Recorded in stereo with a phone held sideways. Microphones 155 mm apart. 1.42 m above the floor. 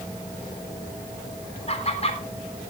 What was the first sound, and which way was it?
Laughter, 45° left (ahead or behind).